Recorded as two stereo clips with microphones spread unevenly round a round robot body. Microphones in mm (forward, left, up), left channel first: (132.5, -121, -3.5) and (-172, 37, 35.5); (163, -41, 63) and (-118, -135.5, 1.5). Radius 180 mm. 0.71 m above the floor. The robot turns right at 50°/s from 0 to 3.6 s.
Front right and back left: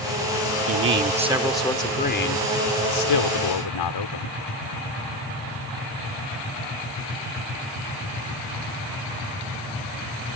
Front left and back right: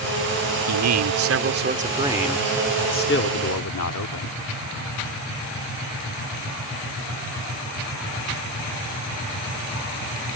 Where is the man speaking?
160° right; by 4.4 s 15° right.